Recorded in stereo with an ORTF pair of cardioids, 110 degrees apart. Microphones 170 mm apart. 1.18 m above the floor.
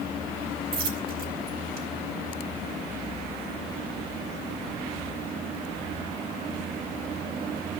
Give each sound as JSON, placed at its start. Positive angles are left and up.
{"t": 0.7, "sound": "a dropped coin", "azimuth_deg": -70, "distance_m": 3.0}